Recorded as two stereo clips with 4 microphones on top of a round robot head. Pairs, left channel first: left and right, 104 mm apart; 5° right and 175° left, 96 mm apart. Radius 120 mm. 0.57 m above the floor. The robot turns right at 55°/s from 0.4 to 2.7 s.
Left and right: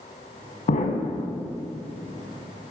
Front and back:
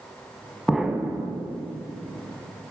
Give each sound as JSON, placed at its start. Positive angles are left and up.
{"t": 0.7, "sound": "an explosion", "azimuth_deg": 90, "distance_m": 1.3}